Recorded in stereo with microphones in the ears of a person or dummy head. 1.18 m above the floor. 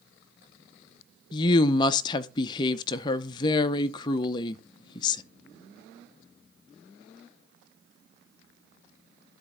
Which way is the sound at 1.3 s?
20° left (ahead or behind).